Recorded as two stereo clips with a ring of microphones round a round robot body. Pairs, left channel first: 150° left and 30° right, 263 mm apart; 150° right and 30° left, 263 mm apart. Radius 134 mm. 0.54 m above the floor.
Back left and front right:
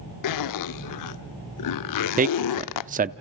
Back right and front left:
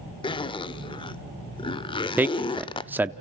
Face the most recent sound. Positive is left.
turn(degrees=-45)